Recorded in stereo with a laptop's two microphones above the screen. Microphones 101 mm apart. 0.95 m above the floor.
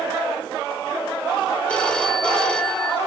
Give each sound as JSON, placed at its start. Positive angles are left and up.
{"t": 1.7, "sound": "a phone ringing", "side_deg": 10, "distance_m": 2.0}